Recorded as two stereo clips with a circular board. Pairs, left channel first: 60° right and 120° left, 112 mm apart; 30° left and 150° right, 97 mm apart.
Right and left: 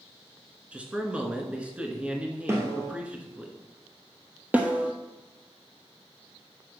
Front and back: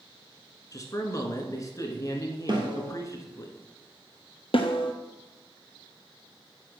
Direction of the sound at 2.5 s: 175° right.